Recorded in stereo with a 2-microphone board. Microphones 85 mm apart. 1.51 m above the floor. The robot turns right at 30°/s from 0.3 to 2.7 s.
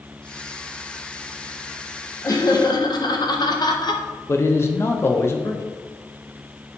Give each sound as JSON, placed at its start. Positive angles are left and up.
{"t": 2.2, "sound": "laughter", "side_deg": 40, "distance_m": 0.9}
{"t": 4.3, "sound": "a man speaking", "side_deg": 30, "distance_m": 0.6}